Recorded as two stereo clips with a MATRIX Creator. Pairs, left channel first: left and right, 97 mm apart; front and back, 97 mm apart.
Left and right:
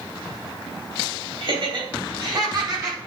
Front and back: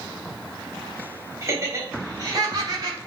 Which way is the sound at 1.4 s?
120° right.